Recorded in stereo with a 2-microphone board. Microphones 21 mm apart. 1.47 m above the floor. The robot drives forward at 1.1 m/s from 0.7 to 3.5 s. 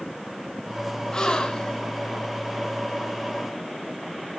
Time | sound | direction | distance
1.1 | a gasp | 35° left (ahead or behind) | 2 m